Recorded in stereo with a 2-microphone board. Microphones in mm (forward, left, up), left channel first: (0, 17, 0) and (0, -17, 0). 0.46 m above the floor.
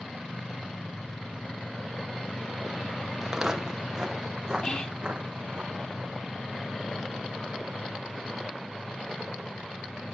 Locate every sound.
3.2 s footsteps: 10° right (ahead or behind), 1.3 m; by 5.6 s 30° right (ahead or behind), 2.5 m
4.6 s whispering: 25° left (ahead or behind), 0.8 m